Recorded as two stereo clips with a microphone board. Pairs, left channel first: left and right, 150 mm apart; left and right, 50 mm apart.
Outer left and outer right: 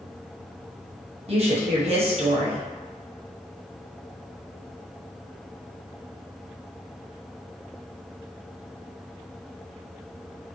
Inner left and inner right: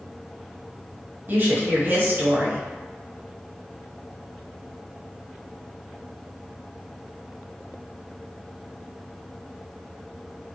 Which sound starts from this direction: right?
A woman speaking, at 1.3 s.